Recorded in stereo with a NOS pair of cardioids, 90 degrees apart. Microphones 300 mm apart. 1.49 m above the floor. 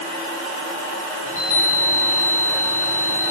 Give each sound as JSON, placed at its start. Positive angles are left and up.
{"t": 1.3, "sound": "a chime", "azimuth_deg": 25, "distance_m": 7.0}